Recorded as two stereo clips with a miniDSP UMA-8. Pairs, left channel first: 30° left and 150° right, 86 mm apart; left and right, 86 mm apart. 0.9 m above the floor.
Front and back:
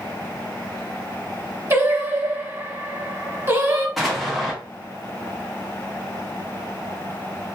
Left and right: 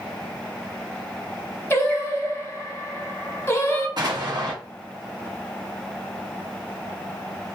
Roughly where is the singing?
Behind left.